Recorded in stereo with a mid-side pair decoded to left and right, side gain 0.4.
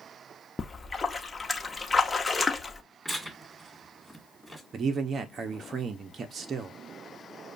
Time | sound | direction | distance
0.6 | a splash | 30° left | 0.8 m
3.0 | tearing paper | straight ahead | 2.0 m
4.7 | a man speaking | 50° right | 0.7 m